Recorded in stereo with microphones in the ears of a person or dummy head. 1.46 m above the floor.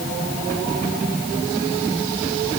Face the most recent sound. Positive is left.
No sound to turn to.